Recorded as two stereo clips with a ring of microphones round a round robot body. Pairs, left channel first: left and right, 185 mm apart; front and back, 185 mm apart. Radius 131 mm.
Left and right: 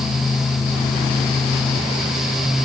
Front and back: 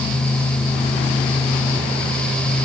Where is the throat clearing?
I don't hear throat clearing.